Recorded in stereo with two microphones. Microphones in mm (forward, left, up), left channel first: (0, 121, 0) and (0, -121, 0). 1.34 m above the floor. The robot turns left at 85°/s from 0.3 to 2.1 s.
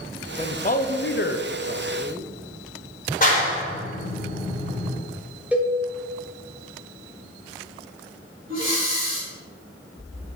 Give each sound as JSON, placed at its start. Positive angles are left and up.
{"t": 0.4, "sound": "a man speaking", "azimuth_deg": 155, "distance_m": 0.5}
{"t": 3.2, "sound": "a clap", "side_deg": 30, "distance_m": 2.0}
{"t": 5.5, "sound": "a cowbell", "side_deg": -5, "distance_m": 1.1}
{"t": 8.5, "sound": "breathing", "side_deg": -55, "distance_m": 1.9}